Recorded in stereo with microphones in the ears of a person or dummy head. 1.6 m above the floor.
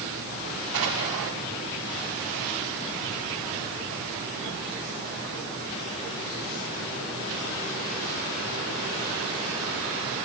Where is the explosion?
70° right (ahead or behind), 5 m.